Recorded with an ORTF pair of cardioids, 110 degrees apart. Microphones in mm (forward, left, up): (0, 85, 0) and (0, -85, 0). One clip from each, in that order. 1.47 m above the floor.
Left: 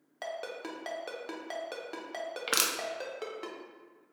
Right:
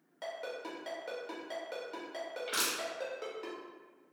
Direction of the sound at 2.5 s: 60° left.